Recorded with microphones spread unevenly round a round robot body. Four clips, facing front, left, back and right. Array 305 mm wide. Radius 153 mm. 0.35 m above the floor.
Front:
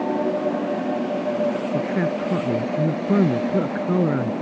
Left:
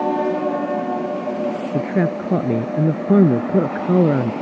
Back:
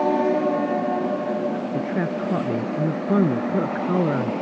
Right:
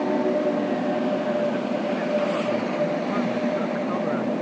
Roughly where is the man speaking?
Left.